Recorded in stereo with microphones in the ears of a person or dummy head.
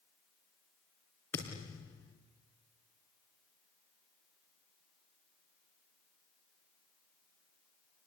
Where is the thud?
10° left (ahead or behind), 4.5 m.